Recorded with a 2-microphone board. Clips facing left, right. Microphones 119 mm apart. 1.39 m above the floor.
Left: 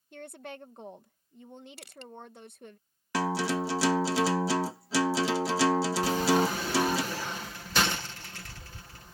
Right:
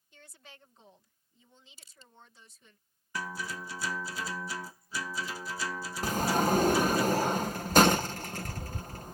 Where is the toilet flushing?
No toilet flushing in this recording.